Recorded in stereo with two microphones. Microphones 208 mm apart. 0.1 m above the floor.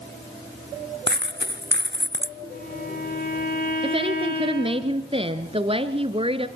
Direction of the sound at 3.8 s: 25° right (ahead or behind).